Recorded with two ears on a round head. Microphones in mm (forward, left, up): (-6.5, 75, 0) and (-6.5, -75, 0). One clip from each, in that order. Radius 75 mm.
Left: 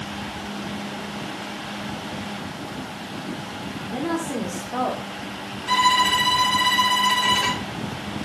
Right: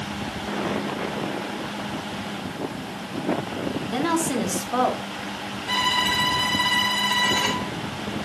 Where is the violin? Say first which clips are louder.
Left 4 dB; 30° left (ahead or behind), 2.5 m.